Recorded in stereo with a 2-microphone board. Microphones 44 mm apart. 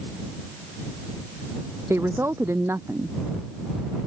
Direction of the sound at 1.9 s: 80° right.